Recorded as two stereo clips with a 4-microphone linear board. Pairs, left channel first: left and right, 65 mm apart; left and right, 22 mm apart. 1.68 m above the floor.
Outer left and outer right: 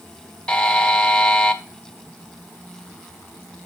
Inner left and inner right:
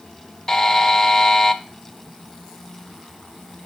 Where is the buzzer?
15° left (ahead or behind), 0.7 m.